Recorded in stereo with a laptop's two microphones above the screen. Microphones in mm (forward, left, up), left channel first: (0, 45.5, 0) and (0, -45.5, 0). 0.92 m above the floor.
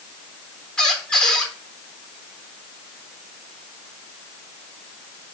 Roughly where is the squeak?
Centre.